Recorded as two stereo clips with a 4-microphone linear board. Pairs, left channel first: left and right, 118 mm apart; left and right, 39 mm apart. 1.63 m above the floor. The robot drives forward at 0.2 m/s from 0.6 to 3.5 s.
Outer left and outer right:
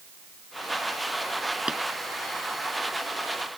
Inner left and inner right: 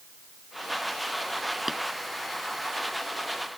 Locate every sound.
1.7 s tapping: 10° right (ahead or behind)